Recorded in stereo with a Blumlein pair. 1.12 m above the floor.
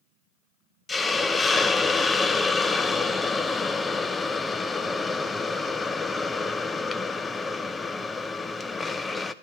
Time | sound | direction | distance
0.9 | a hiss | 10° left | 0.6 m